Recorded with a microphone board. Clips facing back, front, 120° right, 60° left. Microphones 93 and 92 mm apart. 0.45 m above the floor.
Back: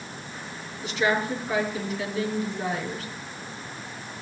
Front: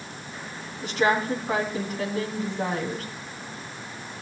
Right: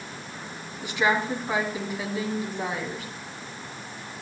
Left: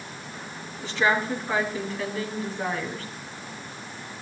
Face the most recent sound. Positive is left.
turn(degrees=-45)